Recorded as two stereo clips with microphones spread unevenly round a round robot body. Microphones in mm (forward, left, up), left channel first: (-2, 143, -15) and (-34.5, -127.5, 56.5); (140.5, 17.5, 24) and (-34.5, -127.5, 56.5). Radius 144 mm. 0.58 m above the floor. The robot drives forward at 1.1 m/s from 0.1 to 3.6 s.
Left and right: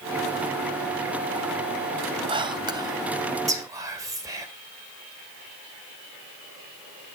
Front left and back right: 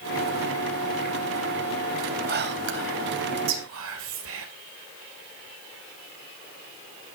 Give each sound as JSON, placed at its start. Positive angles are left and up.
{"t": 2.3, "sound": "whispering", "azimuth_deg": 180, "distance_m": 0.9}